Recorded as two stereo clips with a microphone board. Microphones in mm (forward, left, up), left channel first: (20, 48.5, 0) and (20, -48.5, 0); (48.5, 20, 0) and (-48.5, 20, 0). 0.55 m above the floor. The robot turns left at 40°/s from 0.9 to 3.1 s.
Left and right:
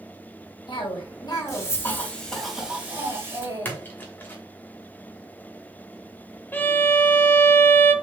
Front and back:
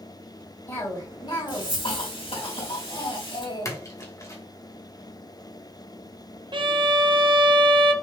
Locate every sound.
0.7 s a cough: 60° left, 3 m; by 3.8 s 25° right, 3 m
3.6 s a splash: 35° left, 1.1 m
6.5 s a violin: 155° left, 0.7 m